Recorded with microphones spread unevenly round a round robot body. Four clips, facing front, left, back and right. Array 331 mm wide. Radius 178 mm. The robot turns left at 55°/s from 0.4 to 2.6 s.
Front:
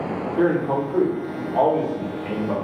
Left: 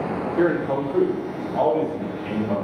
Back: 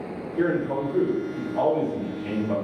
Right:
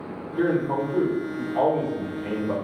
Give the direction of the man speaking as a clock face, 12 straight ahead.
10 o'clock.